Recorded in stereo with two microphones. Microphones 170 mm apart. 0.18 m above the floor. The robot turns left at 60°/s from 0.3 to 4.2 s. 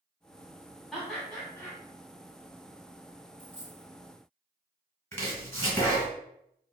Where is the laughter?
Centre (ahead or behind), 1.5 m; by 1.8 s 15° left (ahead or behind), 1.5 m.